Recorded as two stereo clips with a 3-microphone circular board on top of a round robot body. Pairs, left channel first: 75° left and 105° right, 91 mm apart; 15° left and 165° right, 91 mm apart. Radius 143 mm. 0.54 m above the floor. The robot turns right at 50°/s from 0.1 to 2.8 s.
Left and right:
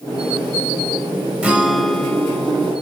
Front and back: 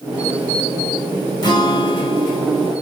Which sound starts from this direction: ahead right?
A guitar, at 1.4 s.